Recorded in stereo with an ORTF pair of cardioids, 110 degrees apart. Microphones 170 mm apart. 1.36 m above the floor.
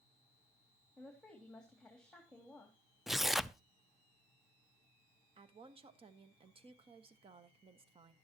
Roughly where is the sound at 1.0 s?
Ahead.